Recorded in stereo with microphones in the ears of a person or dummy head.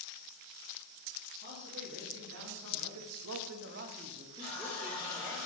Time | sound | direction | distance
1.4 | a man speaking | 60° right (ahead or behind) | 1.5 m
4.4 | a running tap | 45° right (ahead or behind) | 2.5 m